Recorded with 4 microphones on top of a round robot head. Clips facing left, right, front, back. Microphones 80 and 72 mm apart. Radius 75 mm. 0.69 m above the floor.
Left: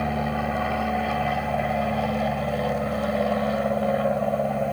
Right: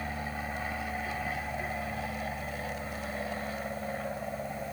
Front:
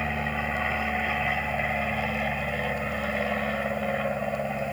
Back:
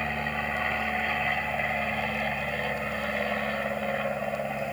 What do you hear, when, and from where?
0.0 s an aircraft: 90° left